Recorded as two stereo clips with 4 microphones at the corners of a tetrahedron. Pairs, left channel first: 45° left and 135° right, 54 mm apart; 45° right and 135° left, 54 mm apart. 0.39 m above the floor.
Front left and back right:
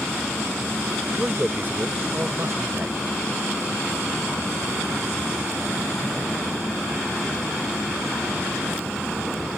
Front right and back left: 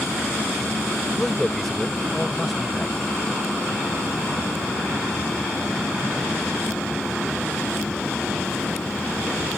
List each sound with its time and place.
1.2 s a man speaking: 115° right; by 3.2 s 140° right